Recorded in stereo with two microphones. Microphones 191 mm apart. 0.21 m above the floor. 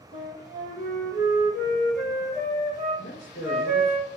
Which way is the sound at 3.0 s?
70° left (ahead or behind).